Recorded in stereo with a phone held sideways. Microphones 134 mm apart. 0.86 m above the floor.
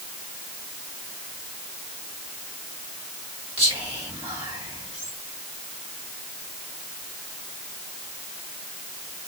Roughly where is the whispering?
Right.